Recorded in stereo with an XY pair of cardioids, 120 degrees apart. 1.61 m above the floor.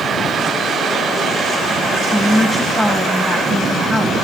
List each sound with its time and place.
2.1 s a woman speaking: 5° right, 1.9 m